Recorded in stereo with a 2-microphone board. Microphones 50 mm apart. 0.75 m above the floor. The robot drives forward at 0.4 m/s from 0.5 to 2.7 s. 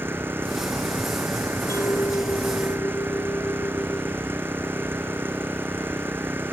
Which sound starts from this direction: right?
An engine running, at 0.0 s.